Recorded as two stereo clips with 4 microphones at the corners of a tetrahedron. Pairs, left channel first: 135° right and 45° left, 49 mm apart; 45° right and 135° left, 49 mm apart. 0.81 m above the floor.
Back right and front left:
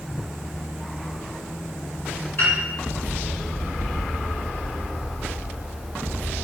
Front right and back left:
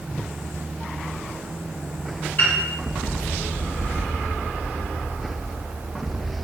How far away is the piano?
About 1.8 m.